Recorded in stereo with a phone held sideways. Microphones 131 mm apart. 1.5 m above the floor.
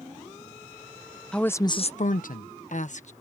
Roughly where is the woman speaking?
Centre.